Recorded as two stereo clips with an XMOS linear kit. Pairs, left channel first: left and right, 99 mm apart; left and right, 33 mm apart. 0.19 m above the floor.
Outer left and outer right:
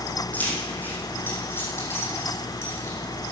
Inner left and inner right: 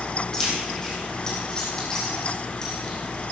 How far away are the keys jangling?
About 6 m.